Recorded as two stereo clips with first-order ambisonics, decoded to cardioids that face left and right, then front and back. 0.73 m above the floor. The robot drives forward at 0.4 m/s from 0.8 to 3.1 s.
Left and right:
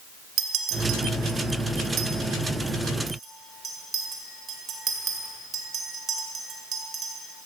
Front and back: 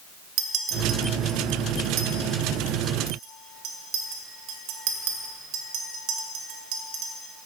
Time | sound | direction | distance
0.4 | a clink | 130° right | 1.5 m